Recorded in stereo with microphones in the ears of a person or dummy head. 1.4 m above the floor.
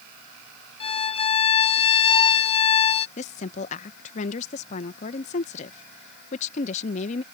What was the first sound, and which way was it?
A violin, 30° left (ahead or behind).